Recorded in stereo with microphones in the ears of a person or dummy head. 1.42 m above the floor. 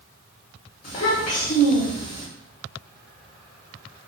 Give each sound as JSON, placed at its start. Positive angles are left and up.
{"t": 0.8, "sound": "a child speaking", "side_deg": 40, "distance_m": 0.7}